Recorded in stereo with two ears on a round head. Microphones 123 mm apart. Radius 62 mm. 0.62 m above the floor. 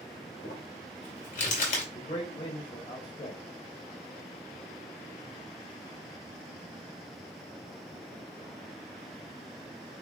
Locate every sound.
0.4 s crumpling: 65° left (ahead or behind), 2.5 m
1.9 s a man speaking: 40° left (ahead or behind), 1.9 m